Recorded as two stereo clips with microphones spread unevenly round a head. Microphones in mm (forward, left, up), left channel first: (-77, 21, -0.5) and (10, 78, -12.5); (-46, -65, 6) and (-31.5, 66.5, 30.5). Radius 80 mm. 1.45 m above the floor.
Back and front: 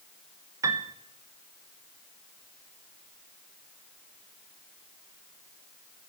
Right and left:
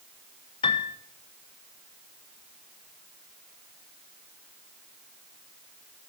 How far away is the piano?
About 0.5 m.